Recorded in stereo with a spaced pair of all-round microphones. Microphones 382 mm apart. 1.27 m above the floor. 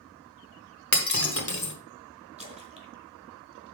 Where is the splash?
15° right (ahead or behind), 1.5 m.